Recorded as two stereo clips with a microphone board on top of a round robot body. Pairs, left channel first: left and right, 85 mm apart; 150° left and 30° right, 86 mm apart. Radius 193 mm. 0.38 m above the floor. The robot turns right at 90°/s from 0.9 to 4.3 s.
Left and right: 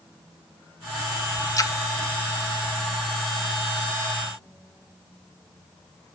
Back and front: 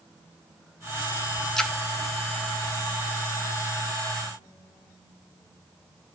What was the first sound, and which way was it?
A splash, 65° left.